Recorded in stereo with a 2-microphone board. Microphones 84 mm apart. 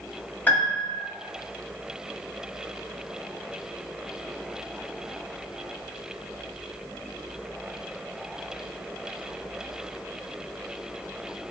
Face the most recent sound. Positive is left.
turn(degrees=20)  # may be behind; listen again after turning